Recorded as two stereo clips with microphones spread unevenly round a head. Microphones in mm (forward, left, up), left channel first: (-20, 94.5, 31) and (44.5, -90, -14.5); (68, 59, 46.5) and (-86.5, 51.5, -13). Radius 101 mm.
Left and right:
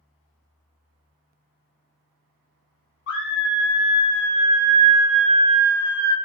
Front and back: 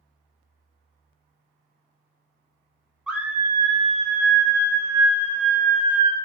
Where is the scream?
90° left, 0.8 m; by 6.2 s 150° right, 1.2 m.